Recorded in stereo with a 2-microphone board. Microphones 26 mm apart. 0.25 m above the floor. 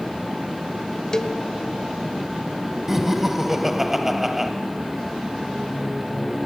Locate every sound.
1.1 s a cowbell: 25° left (ahead or behind), 0.7 m
2.9 s laughter: 10° right (ahead or behind), 1.0 m